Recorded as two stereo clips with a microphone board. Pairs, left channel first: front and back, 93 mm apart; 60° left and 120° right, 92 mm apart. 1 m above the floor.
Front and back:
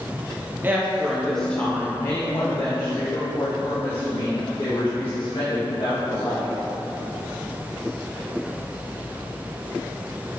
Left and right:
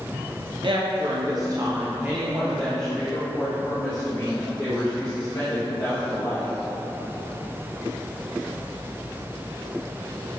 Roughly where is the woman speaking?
Behind right.